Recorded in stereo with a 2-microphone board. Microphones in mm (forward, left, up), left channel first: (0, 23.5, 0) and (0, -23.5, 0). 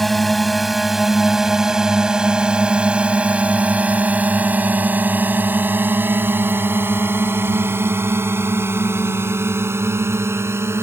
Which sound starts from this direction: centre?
A drone, at 0.0 s.